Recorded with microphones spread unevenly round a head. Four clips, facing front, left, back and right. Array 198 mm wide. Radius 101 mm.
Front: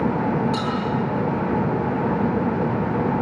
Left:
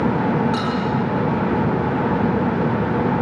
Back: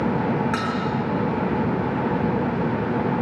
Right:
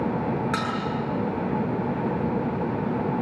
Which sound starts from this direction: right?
Dishes clattering, at 0.5 s.